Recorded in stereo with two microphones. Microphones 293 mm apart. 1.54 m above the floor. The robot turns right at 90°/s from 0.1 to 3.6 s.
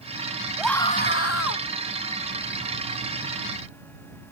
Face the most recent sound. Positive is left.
turn(degrees=-95)